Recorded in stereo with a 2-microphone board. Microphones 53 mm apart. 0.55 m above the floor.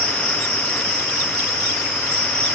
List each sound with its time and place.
0.0 s an insect: centre (ahead or behind), 1.2 m